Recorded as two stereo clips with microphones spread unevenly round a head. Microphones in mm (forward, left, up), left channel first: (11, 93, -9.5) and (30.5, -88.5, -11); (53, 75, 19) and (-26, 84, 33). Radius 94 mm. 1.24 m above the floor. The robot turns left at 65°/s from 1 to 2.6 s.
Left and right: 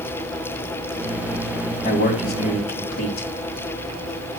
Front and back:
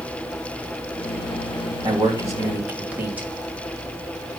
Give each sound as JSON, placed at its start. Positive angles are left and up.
{"t": 1.8, "sound": "a man speaking", "azimuth_deg": 150, "distance_m": 3.0}